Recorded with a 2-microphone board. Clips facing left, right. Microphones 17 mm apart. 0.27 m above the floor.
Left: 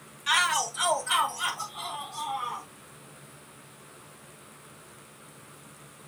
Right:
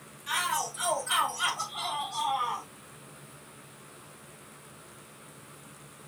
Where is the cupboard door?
No cupboard door in this recording.